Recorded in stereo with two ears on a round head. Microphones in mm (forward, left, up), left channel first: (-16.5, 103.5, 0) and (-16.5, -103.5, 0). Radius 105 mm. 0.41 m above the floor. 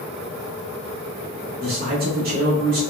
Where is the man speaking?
45° right (ahead or behind), 1.0 m.